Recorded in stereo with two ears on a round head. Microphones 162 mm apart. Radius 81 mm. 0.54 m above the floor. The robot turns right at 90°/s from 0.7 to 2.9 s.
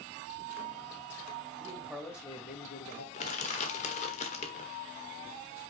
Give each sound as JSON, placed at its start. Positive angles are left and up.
{"t": 1.6, "sound": "a man speaking", "azimuth_deg": -35, "distance_m": 2.5}
{"t": 3.1, "sound": "crushing", "side_deg": 40, "distance_m": 1.4}